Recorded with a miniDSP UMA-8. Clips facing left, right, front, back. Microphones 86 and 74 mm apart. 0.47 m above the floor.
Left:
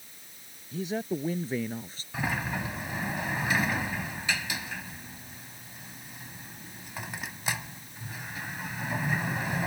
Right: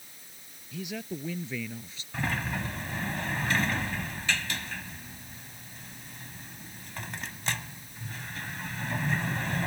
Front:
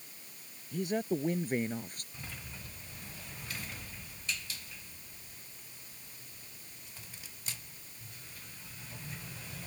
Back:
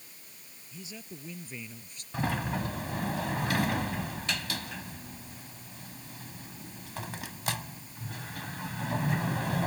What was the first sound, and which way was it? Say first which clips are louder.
A man speaking: left 5 dB, front 14 dB; 35° left.